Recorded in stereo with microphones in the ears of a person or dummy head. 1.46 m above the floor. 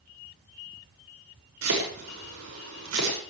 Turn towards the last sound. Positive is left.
turn(degrees=-90)